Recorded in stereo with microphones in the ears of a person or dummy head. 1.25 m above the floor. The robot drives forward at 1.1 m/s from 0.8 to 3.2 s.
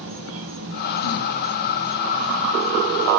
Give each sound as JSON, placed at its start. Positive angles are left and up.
{"t": 0.0, "sound": "an insect", "side_deg": -65, "distance_m": 1.0}